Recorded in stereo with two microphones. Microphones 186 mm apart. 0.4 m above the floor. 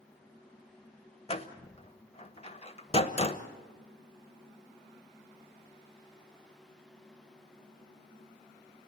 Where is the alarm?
I don't hear an alarm.